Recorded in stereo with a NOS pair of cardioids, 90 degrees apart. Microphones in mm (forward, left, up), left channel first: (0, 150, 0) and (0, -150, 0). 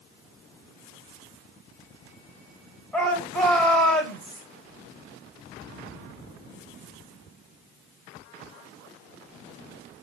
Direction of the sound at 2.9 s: 5° left.